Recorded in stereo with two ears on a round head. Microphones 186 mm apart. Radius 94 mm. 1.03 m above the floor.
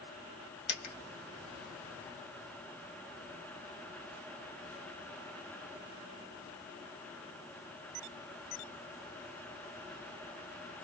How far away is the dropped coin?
About 1.8 m.